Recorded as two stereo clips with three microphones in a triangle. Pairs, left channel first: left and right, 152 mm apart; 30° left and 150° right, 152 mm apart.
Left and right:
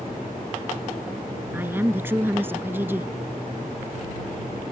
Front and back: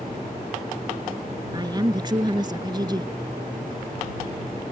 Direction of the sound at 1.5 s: 150° right.